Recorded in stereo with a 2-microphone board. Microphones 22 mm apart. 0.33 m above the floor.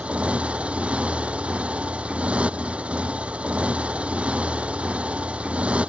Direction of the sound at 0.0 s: 75° right (ahead or behind).